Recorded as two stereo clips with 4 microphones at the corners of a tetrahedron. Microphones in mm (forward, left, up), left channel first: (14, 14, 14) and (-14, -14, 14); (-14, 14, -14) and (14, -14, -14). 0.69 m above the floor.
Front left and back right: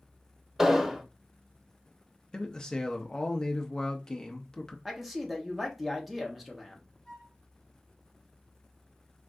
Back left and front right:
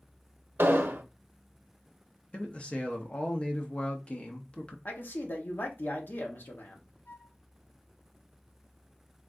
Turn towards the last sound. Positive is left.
turn(degrees=125)